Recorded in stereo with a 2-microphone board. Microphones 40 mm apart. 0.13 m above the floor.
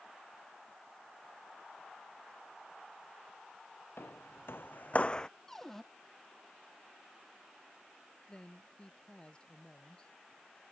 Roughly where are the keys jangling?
No keys jangling in this recording.